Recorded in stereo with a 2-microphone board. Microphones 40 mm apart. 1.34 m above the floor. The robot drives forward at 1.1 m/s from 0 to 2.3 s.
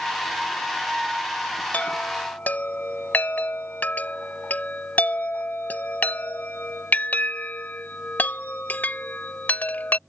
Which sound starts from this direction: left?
A chime, at 1.7 s.